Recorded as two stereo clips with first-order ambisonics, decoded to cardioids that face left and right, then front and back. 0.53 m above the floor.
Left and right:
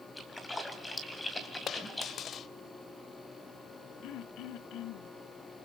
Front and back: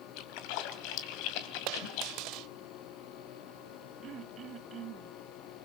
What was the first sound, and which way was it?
A splash, 10° left.